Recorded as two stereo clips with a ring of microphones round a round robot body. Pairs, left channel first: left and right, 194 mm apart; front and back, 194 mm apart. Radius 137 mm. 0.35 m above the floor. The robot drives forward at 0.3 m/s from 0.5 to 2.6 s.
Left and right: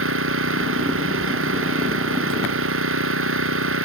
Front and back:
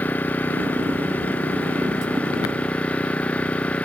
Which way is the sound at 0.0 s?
85° right.